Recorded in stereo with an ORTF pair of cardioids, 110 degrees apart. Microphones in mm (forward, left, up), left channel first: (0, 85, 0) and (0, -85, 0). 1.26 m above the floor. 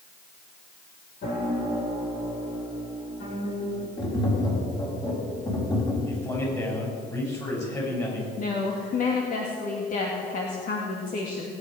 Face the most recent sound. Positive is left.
turn(degrees=50)